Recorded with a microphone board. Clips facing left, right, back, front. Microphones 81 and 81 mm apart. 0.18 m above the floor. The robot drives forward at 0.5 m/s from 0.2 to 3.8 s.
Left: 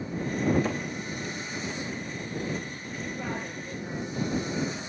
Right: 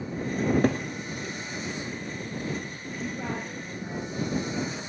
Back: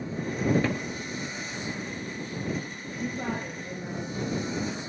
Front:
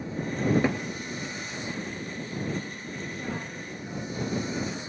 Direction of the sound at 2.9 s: 160° right.